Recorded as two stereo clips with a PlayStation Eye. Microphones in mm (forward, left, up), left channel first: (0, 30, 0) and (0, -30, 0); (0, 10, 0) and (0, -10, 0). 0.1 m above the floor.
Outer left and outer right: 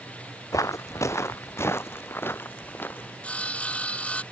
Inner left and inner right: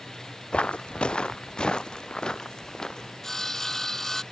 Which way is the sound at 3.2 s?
25° left (ahead or behind).